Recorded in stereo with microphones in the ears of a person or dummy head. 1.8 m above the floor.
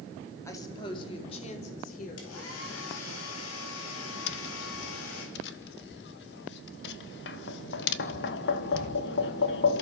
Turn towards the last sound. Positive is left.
turn(degrees=60)  # may be behind; listen again after turning